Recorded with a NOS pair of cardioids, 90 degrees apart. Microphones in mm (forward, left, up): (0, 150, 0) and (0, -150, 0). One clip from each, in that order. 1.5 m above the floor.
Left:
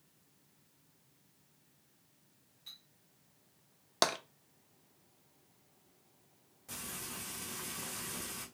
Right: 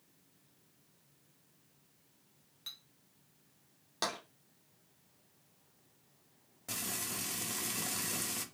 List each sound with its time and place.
2.7 s a clink: 70° right, 1.1 m
4.0 s tapping: 55° left, 0.7 m
6.7 s frying: 55° right, 1.0 m